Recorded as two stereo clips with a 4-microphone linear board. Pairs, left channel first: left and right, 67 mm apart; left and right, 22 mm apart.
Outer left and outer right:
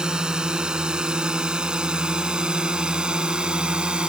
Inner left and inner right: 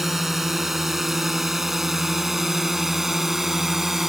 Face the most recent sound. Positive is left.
turn(degrees=-15)  # may be behind; listen again after turning